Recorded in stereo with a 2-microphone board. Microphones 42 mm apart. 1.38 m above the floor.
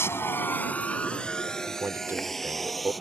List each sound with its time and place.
0.0 s a vehicle: 75° left (ahead or behind); by 3.0 s centre (ahead or behind)
1.7 s a man speaking: 65° right (ahead or behind)